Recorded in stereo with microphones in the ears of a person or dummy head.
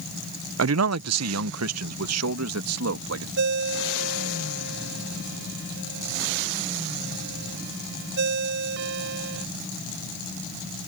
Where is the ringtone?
60° right (ahead or behind).